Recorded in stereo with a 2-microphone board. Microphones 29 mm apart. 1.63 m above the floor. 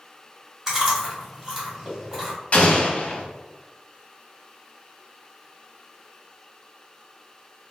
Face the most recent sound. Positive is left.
turn(degrees=45)  # may be behind; listen again after turning